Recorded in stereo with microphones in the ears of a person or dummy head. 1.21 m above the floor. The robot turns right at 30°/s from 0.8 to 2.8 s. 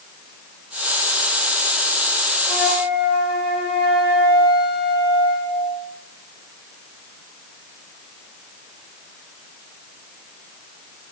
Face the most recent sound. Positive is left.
turn(degrees=0)  # may be behind; listen again after turning